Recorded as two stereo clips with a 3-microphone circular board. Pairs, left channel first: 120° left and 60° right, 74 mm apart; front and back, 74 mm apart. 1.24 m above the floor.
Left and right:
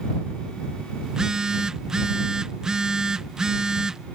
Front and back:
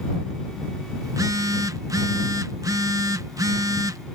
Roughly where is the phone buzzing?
Behind right.